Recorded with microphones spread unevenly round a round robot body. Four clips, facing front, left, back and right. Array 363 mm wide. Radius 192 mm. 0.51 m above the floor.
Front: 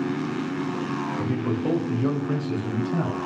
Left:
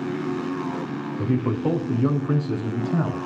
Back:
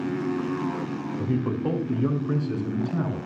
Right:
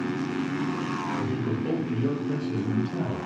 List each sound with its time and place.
1.2 s a man speaking: 80° left, 4.5 m; by 3.2 s 70° left, 6 m